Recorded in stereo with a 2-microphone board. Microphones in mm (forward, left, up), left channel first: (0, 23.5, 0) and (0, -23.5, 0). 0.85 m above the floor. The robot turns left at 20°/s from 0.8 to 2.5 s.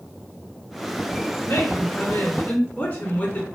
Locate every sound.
1.4 s a woman speaking: 60° left (ahead or behind), 1.7 m; by 3.5 s 40° left (ahead or behind), 1.7 m